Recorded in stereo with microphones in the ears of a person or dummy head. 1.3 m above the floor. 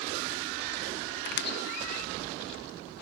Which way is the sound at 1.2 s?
60° left (ahead or behind).